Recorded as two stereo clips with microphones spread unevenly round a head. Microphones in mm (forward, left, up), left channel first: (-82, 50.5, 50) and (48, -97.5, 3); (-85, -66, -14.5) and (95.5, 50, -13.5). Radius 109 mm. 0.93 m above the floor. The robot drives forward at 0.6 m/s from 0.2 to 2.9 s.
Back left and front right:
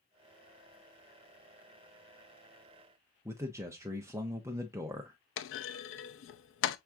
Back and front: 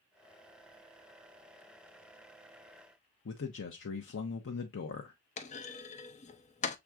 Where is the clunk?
155° left, 0.5 m.